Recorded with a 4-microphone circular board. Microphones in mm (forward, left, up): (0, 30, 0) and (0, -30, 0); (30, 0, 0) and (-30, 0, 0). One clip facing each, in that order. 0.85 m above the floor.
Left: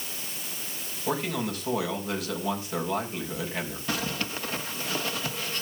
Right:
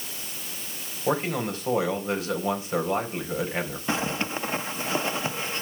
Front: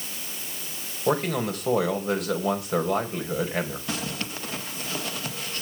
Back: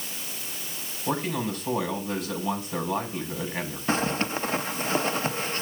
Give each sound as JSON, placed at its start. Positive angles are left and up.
{"t": 1.1, "sound": "a man speaking", "azimuth_deg": -25, "distance_m": 4.0}
{"t": 3.9, "sound": "a zipper", "azimuth_deg": -140, "distance_m": 0.8}